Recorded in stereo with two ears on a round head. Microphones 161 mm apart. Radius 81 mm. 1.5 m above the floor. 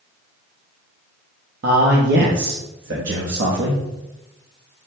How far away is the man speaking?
About 0.7 m.